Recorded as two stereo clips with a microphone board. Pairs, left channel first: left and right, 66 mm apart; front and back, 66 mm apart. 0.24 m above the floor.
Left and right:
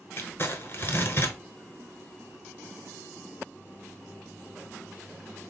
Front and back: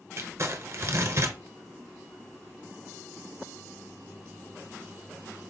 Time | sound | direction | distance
0.2 | crumpling | 140° left | 0.9 m